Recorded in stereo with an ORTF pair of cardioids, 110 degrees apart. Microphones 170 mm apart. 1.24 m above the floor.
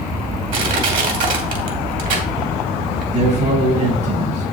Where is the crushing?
55° right, 2.5 m.